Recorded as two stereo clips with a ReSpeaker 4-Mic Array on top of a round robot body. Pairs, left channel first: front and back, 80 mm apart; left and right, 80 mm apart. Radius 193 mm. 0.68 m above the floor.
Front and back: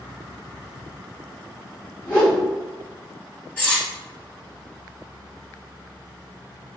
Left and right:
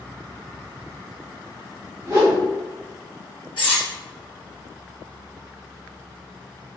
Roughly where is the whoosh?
Ahead right.